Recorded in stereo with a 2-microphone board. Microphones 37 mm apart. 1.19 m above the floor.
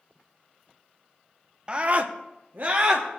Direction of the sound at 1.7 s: 30° right (ahead or behind).